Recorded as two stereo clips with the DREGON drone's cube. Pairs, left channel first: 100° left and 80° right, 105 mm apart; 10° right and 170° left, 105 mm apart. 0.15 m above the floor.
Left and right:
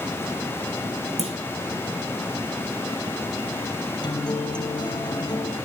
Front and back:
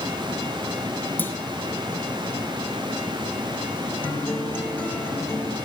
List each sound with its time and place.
1.2 s a clunk: 80° right, 2.5 m
4.0 s a guitar: 60° left, 4 m